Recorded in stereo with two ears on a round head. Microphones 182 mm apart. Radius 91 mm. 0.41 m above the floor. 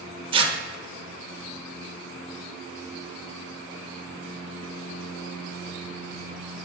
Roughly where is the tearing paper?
Right.